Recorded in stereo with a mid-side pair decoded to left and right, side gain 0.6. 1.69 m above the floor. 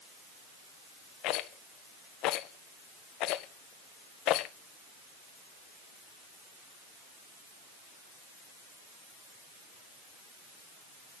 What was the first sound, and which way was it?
A rattle, 65° left.